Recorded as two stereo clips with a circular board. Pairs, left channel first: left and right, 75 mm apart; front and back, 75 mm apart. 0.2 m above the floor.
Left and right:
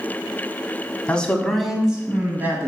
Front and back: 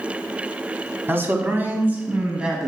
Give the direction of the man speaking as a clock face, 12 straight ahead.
7 o'clock.